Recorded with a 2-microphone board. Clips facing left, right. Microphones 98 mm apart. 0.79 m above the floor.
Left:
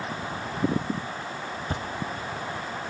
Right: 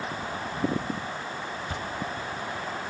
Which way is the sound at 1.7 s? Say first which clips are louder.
Left 2 dB; 40° left (ahead or behind).